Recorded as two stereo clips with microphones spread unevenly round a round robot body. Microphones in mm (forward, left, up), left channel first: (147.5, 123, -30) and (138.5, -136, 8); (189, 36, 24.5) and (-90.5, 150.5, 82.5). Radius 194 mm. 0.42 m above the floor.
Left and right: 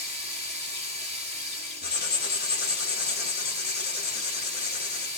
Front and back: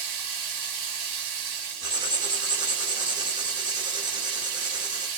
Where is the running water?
165° right, 1.0 m.